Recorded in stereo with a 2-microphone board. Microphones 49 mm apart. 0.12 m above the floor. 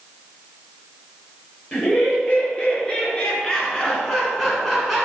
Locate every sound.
1.7 s laughter: 25° left (ahead or behind), 2.0 m; by 5.0 s centre (ahead or behind), 1.0 m